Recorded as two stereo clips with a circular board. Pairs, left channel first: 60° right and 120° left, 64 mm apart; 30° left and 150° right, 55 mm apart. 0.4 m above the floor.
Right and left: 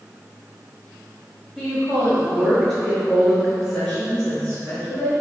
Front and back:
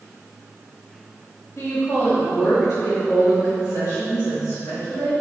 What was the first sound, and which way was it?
A woman speaking, 20° left.